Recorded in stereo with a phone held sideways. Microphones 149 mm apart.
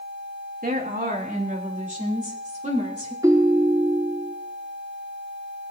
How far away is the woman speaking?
About 2.5 m.